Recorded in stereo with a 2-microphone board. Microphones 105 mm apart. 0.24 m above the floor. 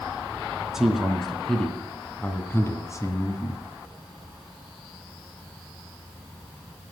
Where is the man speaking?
5° right (ahead or behind), 2.5 m; by 3.6 s 45° left (ahead or behind), 1.7 m.